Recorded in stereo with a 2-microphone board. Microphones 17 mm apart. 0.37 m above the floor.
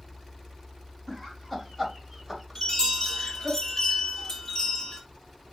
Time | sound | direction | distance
1.1 | laughter | centre (ahead or behind) | 1.8 m
2.5 | a chime | 30° left (ahead or behind) | 1.4 m